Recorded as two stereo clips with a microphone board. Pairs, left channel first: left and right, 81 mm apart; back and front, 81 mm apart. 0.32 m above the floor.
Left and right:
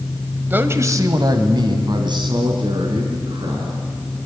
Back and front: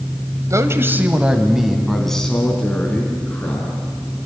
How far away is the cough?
I don't hear a cough.